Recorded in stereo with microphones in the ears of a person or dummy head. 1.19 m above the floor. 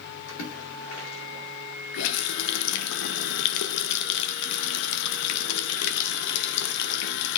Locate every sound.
0.3 s a splash: 70° left (ahead or behind), 3.5 m
1.9 s a running tap: 65° left (ahead or behind), 0.8 m